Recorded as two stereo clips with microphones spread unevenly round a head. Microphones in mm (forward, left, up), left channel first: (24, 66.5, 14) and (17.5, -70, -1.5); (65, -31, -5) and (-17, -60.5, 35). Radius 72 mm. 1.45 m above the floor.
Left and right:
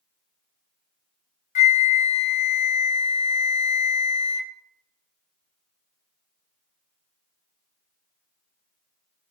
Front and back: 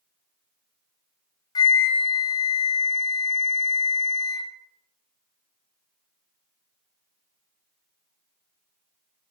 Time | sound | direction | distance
1.6 | a flute | 45° left | 0.5 m